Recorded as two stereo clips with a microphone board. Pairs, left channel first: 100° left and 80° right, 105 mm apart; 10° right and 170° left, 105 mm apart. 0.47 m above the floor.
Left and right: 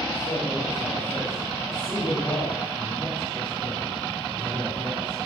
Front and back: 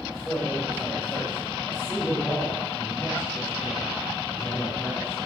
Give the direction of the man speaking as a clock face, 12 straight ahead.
10 o'clock.